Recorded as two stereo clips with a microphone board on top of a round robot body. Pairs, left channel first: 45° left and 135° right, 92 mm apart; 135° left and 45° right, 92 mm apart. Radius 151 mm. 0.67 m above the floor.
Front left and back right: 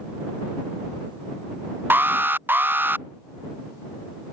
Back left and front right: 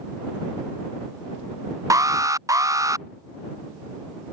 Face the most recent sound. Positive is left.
turn(degrees=-75)